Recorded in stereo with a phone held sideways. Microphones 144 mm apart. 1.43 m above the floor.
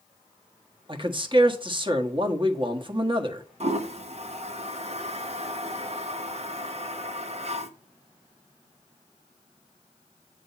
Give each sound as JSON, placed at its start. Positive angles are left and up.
{"t": 0.9, "sound": "a man speaking", "side_deg": -35, "distance_m": 1.3}
{"t": 3.6, "sound": "a toilet flushing", "side_deg": -50, "distance_m": 0.9}